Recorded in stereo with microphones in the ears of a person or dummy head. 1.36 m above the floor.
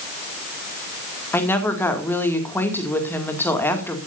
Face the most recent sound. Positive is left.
turn(degrees=15)  # may be behind; listen again after turning